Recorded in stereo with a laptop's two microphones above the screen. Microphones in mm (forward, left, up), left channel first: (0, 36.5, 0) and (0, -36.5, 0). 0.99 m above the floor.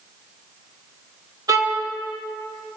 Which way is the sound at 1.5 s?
55° right (ahead or behind).